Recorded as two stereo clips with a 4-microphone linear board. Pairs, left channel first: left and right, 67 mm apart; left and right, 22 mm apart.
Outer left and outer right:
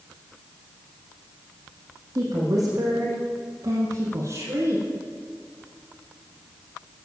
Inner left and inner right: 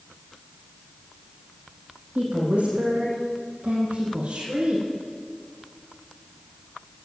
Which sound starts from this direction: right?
A woman speaking, at 2.1 s.